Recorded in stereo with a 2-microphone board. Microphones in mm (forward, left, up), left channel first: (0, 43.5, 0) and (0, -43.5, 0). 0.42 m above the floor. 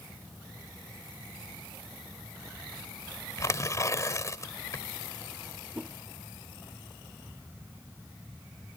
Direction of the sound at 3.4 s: 40° left (ahead or behind).